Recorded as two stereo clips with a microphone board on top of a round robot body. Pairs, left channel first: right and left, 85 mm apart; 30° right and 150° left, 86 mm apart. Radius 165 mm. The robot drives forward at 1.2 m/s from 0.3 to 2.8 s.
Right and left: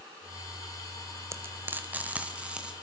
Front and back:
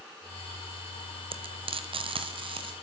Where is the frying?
150° left, 1.1 m; by 2.7 s 170° left, 2.5 m.